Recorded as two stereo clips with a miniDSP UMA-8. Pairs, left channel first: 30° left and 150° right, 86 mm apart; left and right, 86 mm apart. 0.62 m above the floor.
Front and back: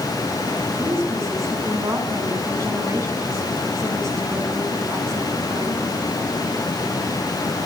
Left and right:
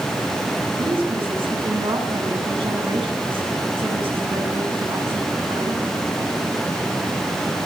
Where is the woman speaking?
100° right, 7 m.